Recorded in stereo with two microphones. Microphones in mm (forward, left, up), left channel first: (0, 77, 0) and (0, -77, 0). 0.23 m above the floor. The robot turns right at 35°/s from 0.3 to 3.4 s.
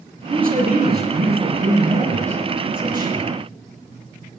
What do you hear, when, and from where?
0.3 s a man speaking: 120° right, 5.5 m; by 3.3 s 15° right, 5.5 m